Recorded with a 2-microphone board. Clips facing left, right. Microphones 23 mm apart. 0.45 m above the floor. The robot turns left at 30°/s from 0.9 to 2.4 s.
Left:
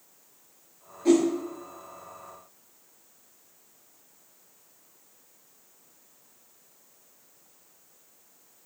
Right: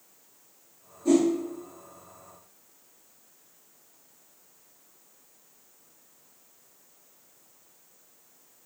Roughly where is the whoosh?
Left.